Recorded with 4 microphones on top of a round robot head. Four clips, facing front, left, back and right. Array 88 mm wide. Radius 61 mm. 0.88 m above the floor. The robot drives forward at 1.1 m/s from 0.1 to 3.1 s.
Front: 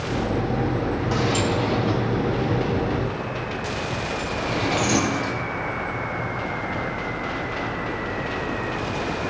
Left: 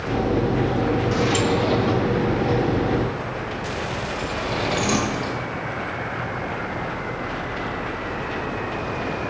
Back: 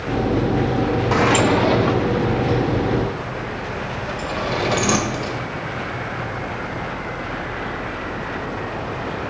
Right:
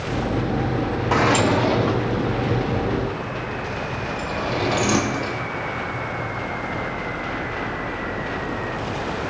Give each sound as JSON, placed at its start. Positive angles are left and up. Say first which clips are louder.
{"t": 1.1, "sound": "a sliding door", "louder": "right 3 dB, back 8 dB", "azimuth_deg": -125, "distance_m": 0.6}